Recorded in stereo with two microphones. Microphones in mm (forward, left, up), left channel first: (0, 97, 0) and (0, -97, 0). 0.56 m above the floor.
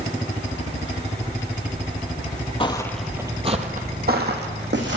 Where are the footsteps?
30° left (ahead or behind), 0.7 m; by 5.0 s 70° right (ahead or behind), 1.6 m.